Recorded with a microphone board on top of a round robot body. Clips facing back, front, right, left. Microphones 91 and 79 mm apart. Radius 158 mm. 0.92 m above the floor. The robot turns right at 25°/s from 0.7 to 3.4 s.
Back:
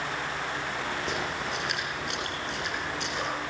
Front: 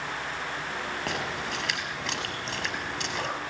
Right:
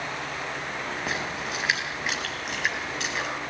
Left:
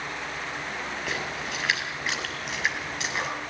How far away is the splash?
About 6 m.